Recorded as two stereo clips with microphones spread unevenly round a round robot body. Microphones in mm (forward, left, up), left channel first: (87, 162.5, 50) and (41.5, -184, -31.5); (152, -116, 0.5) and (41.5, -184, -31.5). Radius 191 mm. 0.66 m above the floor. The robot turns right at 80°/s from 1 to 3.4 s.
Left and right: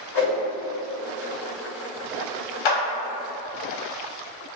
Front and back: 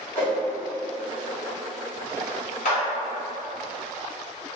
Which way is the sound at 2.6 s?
75° left.